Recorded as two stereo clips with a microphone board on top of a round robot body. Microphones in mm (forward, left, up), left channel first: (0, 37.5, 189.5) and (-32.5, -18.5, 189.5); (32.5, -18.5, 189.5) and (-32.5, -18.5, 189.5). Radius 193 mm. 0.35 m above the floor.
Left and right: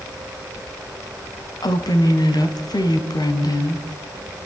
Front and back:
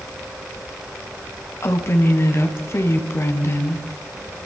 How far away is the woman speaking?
About 3.5 m.